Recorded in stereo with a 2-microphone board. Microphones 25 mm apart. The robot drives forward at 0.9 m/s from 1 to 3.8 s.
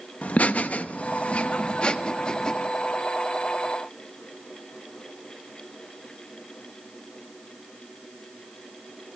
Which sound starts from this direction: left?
Laughter, at 0.2 s.